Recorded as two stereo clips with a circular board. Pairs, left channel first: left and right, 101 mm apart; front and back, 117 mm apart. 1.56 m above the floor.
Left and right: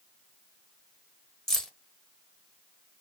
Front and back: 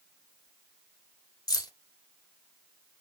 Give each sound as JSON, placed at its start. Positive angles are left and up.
{"t": 1.5, "sound": "keys jangling", "azimuth_deg": 10, "distance_m": 0.6}